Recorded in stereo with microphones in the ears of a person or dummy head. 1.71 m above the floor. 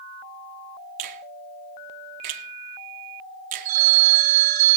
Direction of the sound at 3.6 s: 40° right (ahead or behind).